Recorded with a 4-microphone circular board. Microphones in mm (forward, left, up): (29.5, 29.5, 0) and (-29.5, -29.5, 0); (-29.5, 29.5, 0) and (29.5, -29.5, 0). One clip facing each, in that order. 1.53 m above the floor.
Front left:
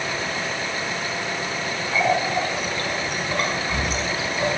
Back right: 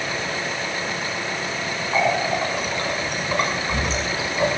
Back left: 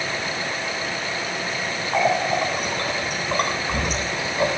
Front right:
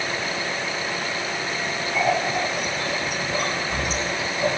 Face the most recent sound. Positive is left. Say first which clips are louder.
# even, back left 2 dB
turn(degrees=160)